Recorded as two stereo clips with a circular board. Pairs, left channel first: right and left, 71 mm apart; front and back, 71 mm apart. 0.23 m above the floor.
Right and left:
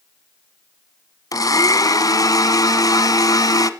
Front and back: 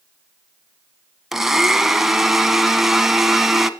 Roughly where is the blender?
Right.